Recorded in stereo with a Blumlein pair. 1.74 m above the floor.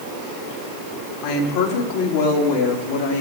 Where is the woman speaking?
45° left, 3 m; by 3.2 s 60° left, 3.5 m.